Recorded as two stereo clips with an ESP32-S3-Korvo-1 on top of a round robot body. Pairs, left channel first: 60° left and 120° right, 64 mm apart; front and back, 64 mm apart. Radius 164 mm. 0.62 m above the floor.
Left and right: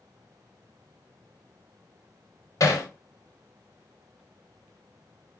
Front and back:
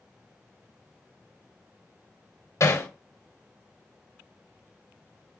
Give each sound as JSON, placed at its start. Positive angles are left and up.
{"t": 2.6, "sound": "hammering", "azimuth_deg": 30, "distance_m": 2.5}